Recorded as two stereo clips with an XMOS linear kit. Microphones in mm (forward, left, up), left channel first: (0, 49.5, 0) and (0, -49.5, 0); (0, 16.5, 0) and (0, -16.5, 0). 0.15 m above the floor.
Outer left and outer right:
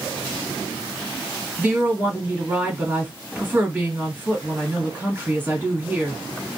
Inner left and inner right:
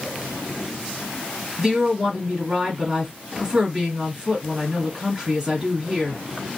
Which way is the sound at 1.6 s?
25° right (ahead or behind).